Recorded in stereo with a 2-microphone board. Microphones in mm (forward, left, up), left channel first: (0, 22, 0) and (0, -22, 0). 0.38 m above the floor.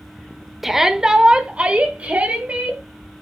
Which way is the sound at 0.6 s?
5° right (ahead or behind).